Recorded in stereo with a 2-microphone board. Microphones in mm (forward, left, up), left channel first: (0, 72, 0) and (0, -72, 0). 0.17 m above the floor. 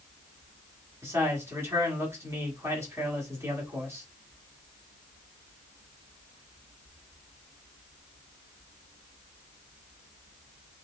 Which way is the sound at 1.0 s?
20° right (ahead or behind).